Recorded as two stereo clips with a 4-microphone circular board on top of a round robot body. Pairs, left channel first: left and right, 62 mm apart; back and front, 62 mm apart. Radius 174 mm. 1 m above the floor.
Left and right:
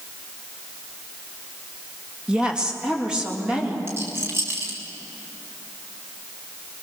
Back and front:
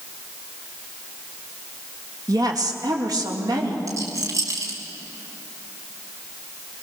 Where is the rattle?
40° right, 1.7 m.